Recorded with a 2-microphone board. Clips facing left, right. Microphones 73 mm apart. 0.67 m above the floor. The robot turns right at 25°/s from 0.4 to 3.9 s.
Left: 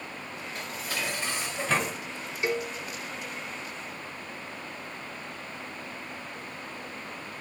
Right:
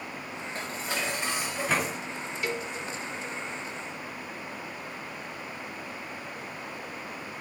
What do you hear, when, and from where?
0.6 s dishes clattering: 35° right, 0.9 m; by 2.0 s straight ahead, 0.9 m
2.4 s a cowbell: 20° left (ahead or behind), 0.5 m; by 2.7 s 25° left (ahead or behind), 0.5 m